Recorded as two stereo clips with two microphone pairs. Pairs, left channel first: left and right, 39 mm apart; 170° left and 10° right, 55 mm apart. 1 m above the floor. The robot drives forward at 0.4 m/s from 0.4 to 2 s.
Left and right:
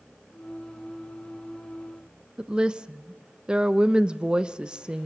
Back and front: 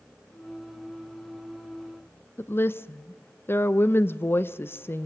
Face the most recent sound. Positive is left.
turn(degrees=-155)